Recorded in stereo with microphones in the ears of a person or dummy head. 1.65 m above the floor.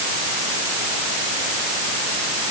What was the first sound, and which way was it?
Only background noise.